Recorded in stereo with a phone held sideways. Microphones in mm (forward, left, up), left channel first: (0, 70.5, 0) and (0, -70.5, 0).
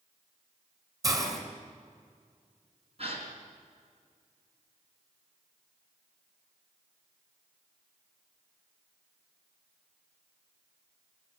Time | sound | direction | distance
1.0 | a hiss | 25° right (ahead or behind) | 4 m
3.0 | a gasp | 50° right (ahead or behind) | 4 m